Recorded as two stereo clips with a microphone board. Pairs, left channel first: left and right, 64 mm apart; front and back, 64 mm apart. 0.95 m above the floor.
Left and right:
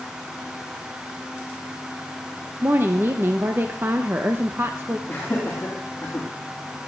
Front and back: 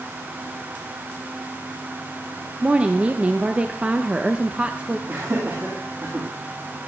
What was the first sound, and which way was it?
A woman speaking, 120° right.